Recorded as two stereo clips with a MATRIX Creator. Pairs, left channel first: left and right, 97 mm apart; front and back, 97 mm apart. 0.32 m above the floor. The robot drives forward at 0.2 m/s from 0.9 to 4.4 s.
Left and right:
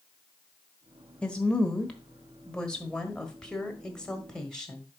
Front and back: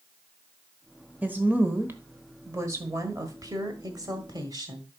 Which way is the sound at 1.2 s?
150° left.